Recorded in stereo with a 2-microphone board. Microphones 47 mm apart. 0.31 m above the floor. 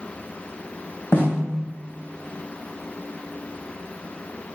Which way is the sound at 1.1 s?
50° left (ahead or behind).